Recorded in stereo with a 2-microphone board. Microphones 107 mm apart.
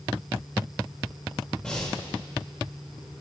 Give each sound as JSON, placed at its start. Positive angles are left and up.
{"t": 1.6, "sound": "breathing", "side_deg": 10, "distance_m": 5.5}